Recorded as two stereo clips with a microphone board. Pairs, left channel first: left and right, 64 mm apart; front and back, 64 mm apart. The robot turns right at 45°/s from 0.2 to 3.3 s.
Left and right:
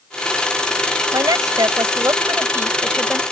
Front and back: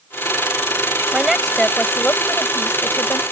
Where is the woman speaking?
105° right; by 3.2 s 10° right.